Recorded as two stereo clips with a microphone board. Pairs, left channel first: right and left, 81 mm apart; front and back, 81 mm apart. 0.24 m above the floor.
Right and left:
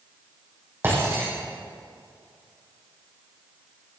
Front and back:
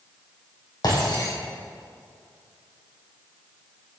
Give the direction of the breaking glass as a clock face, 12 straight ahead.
11 o'clock.